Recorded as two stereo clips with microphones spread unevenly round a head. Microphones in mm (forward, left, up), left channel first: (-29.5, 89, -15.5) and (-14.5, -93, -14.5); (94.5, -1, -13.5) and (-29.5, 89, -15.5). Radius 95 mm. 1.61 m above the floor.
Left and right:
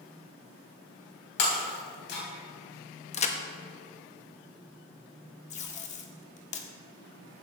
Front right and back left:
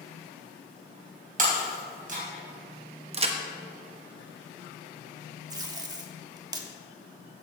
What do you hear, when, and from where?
1.4 s breaking glass: 115° left, 3.5 m
3.1 s a crack: 125° left, 1.1 m
5.5 s tape being pulled: 100° left, 1.3 m